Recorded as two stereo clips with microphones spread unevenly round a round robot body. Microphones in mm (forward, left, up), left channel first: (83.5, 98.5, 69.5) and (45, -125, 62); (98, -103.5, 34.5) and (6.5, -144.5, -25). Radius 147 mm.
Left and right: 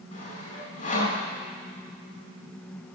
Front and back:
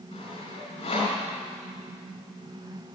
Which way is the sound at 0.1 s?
25° left.